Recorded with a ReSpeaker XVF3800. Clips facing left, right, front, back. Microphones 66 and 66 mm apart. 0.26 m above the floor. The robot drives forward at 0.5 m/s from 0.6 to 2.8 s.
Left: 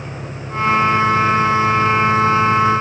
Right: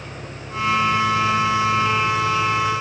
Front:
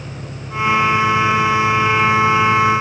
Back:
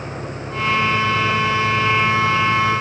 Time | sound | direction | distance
0.0 | an engine running | 70° left | ?